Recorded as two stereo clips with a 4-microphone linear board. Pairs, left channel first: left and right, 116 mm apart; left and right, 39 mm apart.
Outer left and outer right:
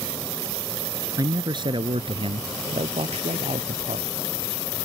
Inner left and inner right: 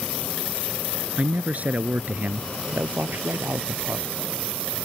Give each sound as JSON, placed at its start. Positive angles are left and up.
{"t": 1.2, "sound": "a man speaking", "side_deg": -35}